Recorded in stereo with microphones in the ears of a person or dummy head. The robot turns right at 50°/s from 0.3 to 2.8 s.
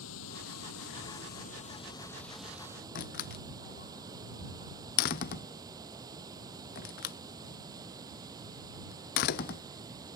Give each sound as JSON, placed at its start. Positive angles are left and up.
{"t": 0.0, "sound": "running water", "azimuth_deg": 75}
{"t": 3.0, "sound": "a door slam", "side_deg": 35}